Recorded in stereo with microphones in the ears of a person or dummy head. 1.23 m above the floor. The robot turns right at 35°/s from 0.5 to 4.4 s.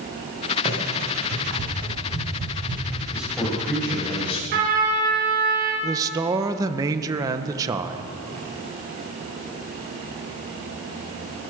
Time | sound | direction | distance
0.7 | running footsteps | 35° right (ahead or behind) | 6.5 m
3.1 | a man speaking | 15° right | 6 m
4.5 | a trumpet | 65° right (ahead or behind) | 6 m
5.8 | a man speaking | 25° right (ahead or behind) | 0.9 m